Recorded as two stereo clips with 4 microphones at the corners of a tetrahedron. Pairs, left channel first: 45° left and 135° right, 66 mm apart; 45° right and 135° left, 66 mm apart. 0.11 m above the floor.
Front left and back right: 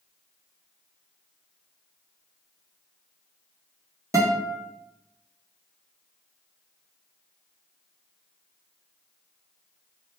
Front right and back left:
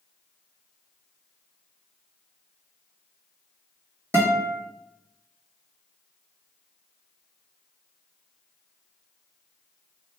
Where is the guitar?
175° right, 1.1 m.